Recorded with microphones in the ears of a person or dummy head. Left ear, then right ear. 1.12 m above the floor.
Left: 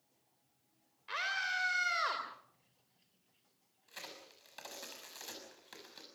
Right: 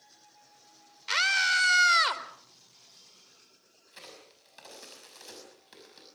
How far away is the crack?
About 6.5 m.